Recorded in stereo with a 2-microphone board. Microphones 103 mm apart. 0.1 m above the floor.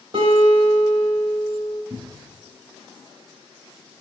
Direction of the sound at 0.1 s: 70° right (ahead or behind).